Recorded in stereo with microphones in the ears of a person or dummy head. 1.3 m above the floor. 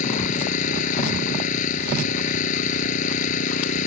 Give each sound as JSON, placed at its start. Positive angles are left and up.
{"t": 0.0, "sound": "an engine running", "side_deg": 45}